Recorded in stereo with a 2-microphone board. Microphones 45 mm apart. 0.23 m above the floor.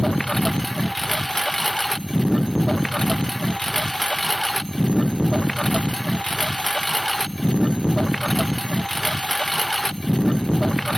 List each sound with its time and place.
0.0 s a lawn mower: 10° left (ahead or behind)